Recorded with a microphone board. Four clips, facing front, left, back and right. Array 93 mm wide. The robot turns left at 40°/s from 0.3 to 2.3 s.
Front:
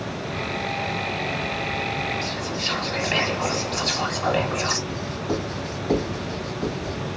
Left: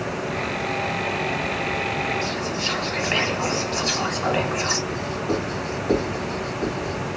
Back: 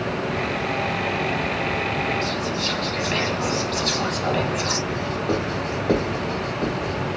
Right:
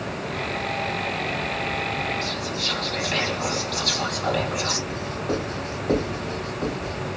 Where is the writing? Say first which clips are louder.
Left 2 dB, back 4 dB; straight behind, 2 m.